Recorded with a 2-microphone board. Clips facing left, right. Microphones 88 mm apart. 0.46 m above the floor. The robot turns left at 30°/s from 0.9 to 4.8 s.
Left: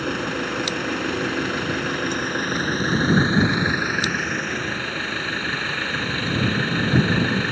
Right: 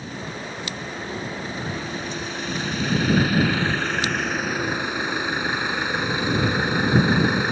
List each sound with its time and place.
0.0 s an engine running: 100° left; by 7.5 s 15° right